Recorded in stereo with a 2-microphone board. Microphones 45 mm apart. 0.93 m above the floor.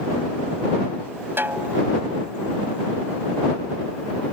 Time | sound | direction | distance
1.4 | a snare drum | 60° right (ahead or behind) | ?